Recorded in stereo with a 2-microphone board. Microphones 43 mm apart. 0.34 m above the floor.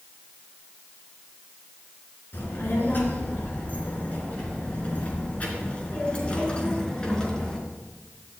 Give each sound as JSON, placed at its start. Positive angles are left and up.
{"t": 2.3, "sound": "a child speaking", "side_deg": 55, "distance_m": 4.0}